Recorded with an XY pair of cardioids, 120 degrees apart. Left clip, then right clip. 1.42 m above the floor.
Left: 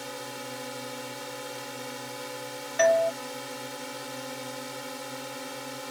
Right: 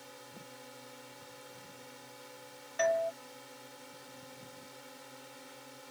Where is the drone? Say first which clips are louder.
Left 14 dB; 70° left.